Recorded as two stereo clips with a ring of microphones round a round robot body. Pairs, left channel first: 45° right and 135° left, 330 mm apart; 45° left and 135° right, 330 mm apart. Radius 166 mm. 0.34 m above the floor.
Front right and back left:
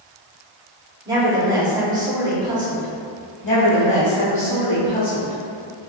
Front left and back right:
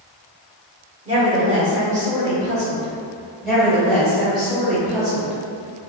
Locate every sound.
1.1 s a woman speaking: 165° right, 1.0 m
3.4 s a woman speaking: 45° right, 1.5 m